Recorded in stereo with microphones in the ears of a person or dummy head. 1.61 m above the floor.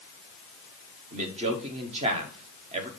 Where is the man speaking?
40° right (ahead or behind), 1.3 m.